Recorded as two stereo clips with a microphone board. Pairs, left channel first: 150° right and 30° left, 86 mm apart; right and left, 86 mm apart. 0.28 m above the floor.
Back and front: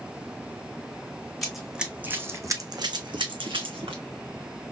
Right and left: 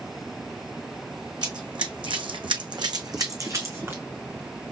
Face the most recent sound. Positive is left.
turn(degrees=25)